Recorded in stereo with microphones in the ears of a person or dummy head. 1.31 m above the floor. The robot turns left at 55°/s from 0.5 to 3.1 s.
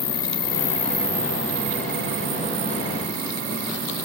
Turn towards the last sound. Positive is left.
turn(degrees=-120)